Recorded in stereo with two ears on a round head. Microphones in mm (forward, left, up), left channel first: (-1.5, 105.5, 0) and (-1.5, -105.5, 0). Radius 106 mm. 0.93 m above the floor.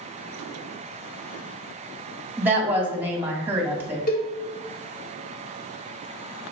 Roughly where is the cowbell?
Left.